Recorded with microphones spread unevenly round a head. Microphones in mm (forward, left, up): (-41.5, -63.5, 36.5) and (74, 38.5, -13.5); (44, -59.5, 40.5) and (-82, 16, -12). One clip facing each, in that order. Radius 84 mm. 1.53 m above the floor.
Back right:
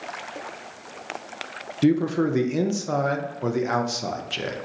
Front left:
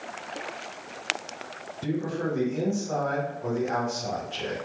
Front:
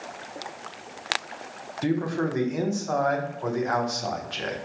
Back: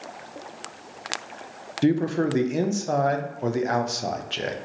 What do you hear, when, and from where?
1.8 s a man speaking: 150° right, 0.5 m